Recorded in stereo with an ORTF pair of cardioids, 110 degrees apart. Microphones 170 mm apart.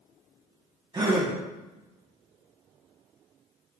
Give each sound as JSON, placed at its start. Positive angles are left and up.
{"t": 0.9, "sound": "a gasp", "azimuth_deg": -25, "distance_m": 2.0}